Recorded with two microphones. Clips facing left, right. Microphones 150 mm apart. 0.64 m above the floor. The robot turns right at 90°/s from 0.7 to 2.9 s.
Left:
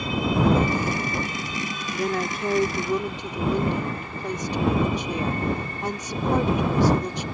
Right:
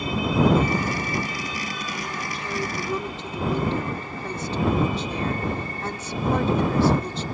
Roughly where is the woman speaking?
Left.